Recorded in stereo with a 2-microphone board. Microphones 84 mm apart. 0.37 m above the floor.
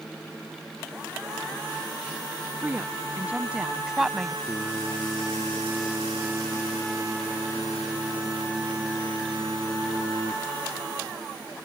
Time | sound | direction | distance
2.6 | a woman speaking | 25° right (ahead or behind) | ?
4.5 | singing | 20° right (ahead or behind) | ?